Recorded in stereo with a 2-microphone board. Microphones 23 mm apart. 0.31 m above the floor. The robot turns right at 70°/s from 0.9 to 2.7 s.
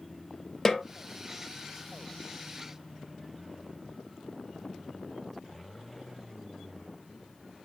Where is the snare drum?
25° left (ahead or behind), 0.7 m.